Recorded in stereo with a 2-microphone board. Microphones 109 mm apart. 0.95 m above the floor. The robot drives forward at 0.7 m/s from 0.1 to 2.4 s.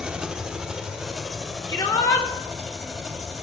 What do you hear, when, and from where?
0.0 s an engine running: 5° right (ahead or behind), 0.9 m
1.7 s a shout: 35° left (ahead or behind), 1.7 m; by 2.3 s 25° left (ahead or behind), 2 m